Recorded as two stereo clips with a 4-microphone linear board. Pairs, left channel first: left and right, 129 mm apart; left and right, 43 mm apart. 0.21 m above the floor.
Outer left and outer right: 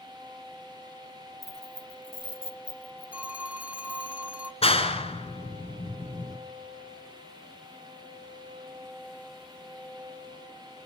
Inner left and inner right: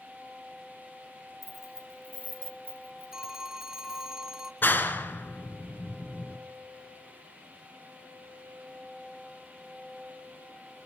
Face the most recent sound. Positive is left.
turn(degrees=50)  # may be behind; listen again after turning